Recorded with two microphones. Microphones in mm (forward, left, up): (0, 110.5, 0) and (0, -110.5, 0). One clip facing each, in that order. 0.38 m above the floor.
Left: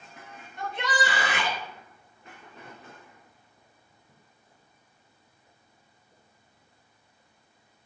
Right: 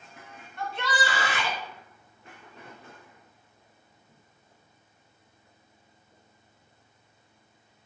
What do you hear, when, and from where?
0.6 s a shout: 20° left (ahead or behind), 3 m